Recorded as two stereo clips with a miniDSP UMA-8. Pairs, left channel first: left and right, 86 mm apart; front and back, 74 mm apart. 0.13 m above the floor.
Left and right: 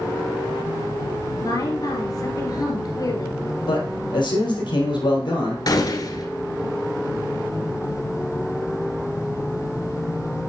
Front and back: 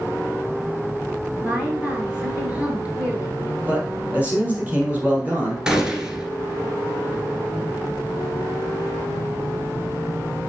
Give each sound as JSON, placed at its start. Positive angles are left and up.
{"t": 1.4, "sound": "a woman speaking", "azimuth_deg": 115, "distance_m": 2.0}
{"t": 3.7, "sound": "a man speaking", "azimuth_deg": 110, "distance_m": 4.0}
{"t": 5.7, "sound": "a gunshot", "azimuth_deg": 105, "distance_m": 1.3}